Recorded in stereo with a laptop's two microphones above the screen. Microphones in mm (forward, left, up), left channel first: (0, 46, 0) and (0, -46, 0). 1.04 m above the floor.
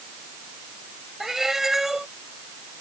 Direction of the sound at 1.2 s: 5° right (ahead or behind).